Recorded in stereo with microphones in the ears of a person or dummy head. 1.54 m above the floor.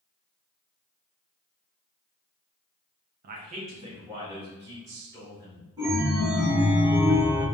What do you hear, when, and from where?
3.2 s a man speaking: 55° right (ahead or behind), 0.6 m; by 5.7 s 20° right (ahead or behind), 2.5 m
5.8 s a chime: 25° right (ahead or behind), 1.1 m